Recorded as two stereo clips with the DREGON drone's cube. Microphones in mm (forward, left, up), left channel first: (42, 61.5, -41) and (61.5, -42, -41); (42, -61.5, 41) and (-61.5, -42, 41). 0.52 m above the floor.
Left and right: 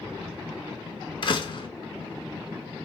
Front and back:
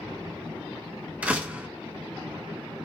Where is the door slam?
95° left, 0.6 m.